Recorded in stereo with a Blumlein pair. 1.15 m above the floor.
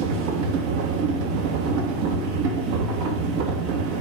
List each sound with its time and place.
0.0 s a machine running: 45° right, 1.2 m